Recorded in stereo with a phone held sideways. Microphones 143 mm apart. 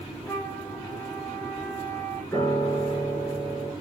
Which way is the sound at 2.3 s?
10° left (ahead or behind).